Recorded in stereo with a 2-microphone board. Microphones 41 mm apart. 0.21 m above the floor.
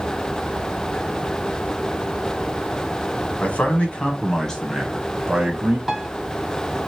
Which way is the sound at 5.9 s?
5° right (ahead or behind).